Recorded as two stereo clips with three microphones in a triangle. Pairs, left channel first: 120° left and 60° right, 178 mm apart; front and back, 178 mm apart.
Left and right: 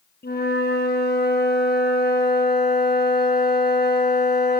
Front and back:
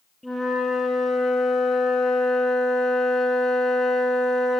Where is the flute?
90° left, 7.5 m.